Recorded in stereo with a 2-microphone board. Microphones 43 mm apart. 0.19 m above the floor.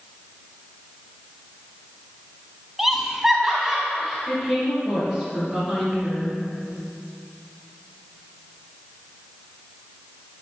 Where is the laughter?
5° right (ahead or behind), 1.0 m.